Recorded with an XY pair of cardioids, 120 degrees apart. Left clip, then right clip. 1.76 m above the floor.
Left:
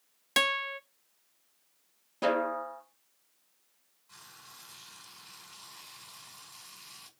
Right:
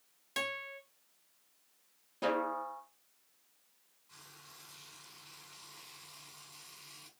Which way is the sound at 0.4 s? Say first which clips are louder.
Left 10 dB; 60° left.